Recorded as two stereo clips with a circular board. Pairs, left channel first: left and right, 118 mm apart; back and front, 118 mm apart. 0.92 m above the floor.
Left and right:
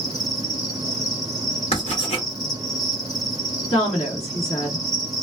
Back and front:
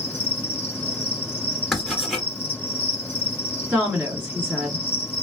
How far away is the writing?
About 2 m.